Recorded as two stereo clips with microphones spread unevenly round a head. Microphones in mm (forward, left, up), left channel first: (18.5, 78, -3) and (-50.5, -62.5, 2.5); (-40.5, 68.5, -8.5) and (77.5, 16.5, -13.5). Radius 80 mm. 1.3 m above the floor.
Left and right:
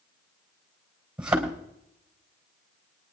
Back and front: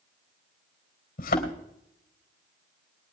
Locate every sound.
1.2 s a thud: 160° left, 3 m